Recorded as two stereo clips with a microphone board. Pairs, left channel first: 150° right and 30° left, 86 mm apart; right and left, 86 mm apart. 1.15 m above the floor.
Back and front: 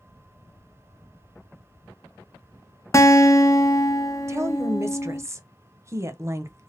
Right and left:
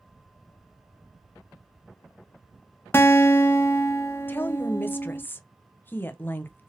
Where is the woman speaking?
25° right, 0.6 m.